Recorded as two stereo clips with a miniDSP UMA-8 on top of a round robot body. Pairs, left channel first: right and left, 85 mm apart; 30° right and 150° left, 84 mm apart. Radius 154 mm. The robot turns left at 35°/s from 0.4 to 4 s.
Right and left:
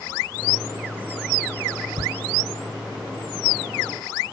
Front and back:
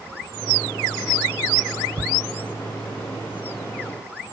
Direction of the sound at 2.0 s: 115° left.